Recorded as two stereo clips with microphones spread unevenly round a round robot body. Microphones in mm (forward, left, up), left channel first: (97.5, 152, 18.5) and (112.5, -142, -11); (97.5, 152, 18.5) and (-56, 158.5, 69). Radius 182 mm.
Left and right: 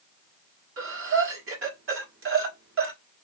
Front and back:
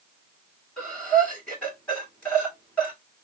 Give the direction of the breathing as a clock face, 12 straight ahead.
2 o'clock.